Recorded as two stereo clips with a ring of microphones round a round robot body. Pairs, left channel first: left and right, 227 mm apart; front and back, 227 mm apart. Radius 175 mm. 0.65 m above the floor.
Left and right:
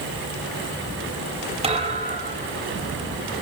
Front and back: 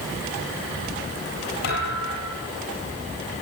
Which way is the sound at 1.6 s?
30° right.